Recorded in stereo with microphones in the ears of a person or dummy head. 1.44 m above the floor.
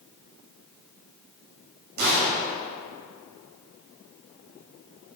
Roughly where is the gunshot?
Right.